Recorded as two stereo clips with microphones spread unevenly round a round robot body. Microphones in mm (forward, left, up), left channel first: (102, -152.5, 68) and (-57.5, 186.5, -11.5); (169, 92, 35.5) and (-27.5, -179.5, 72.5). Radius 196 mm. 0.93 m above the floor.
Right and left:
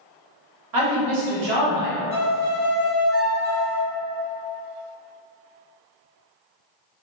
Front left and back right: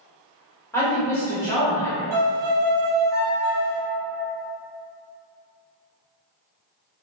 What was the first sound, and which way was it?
A woman speaking, 135° left.